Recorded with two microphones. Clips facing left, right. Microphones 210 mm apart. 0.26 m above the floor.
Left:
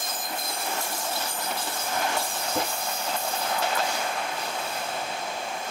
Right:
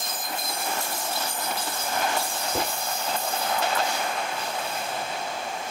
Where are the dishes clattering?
45° right (ahead or behind), 1.6 m.